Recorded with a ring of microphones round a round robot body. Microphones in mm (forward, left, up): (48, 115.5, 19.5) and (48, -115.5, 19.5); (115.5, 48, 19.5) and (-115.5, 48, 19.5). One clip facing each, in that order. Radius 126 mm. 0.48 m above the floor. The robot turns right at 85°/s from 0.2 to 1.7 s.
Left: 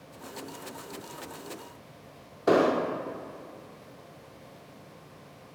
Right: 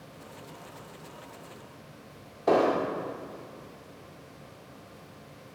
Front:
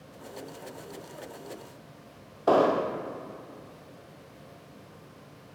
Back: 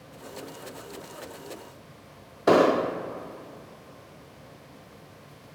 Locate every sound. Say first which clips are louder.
2.5 s an explosion: left 1 dB, back 3 dB; 150° left, 0.6 m